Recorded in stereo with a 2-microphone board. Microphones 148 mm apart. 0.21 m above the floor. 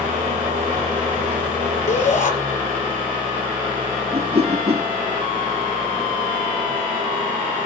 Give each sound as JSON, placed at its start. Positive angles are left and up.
{"t": 0.0, "sound": "an engine running", "side_deg": -55, "distance_m": 9.5}
{"t": 1.9, "sound": "a shout", "side_deg": 50, "distance_m": 5.0}
{"t": 4.1, "sound": "a whoosh", "side_deg": -45, "distance_m": 0.8}